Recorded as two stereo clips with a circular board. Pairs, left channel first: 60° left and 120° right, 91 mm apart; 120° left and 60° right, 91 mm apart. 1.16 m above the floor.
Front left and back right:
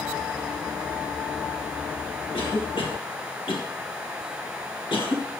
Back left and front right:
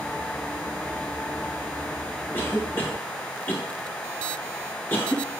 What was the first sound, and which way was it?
A cough, 55° left.